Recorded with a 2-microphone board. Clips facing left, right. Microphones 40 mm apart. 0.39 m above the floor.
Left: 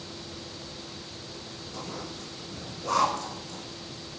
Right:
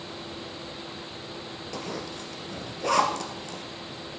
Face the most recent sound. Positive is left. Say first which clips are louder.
# right 3 dB
turn(degrees=-90)